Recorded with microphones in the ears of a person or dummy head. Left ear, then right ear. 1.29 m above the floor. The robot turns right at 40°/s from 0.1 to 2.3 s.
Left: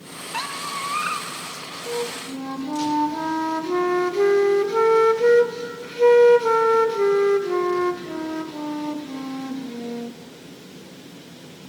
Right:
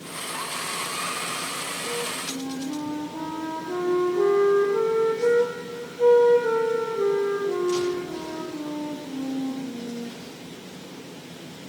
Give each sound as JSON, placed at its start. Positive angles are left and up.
{"t": 0.3, "sound": "a squeak", "azimuth_deg": 100, "distance_m": 1.5}
{"t": 1.9, "sound": "a flute", "side_deg": 60, "distance_m": 1.3}